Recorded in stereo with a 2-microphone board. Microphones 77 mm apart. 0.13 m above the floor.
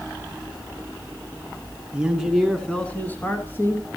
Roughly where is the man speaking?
Centre.